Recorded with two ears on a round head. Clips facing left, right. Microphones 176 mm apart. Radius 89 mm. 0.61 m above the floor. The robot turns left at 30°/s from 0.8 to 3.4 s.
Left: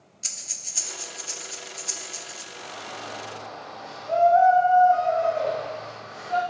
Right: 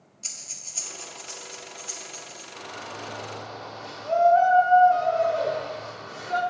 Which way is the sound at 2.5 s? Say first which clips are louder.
Right 1 dB; 55° right (ahead or behind).